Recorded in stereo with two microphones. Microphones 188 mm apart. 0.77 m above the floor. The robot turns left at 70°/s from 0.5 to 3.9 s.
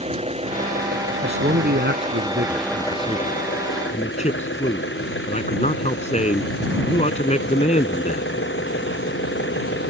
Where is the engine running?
30° right; by 9.9 s 90° left.